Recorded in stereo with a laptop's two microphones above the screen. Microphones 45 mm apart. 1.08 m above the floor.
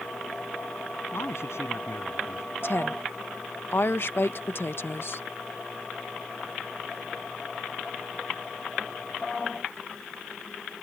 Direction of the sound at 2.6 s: 55° left (ahead or behind).